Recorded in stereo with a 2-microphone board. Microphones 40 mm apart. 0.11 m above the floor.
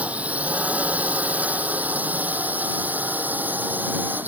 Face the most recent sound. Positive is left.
turn(degrees=-50)  # may be behind; listen again after turning